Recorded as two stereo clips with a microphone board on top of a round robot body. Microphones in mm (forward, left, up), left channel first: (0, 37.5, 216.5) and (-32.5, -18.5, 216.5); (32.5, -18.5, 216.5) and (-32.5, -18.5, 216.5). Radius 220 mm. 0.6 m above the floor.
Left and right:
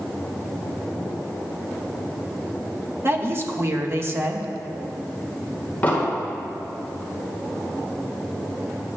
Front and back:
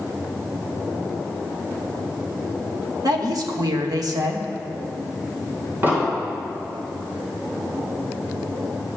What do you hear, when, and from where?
3.0 s a woman speaking: 170° right, 1.5 m
5.8 s an explosion: 125° left, 4 m